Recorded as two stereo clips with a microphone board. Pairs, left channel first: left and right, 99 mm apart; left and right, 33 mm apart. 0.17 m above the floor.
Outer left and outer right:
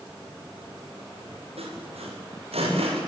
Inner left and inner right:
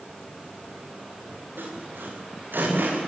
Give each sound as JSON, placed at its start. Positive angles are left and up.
{"t": 1.6, "sound": "sawing", "side_deg": -85, "distance_m": 10.0}